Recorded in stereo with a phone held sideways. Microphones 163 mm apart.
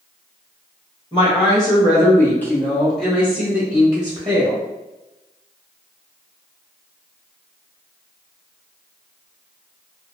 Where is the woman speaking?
30° left (ahead or behind), 1.3 m; by 4.6 s 25° right (ahead or behind), 1.3 m.